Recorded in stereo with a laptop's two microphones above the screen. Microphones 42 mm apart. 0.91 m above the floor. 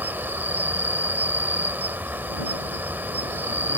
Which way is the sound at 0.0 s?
60° right (ahead or behind).